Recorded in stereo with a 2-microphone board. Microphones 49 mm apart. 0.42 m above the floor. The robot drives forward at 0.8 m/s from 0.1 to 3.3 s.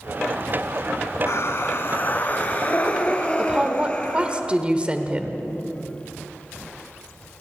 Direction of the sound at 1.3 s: 65° left (ahead or behind).